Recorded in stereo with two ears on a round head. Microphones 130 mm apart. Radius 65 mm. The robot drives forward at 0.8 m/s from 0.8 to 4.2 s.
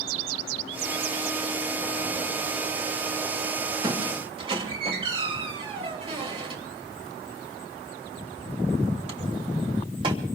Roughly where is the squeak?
Right.